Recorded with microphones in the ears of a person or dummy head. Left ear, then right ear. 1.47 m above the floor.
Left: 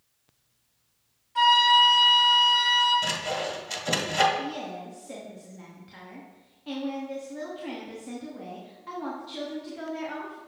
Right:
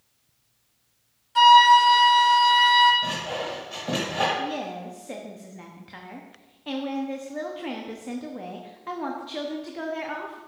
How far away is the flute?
About 2.5 m.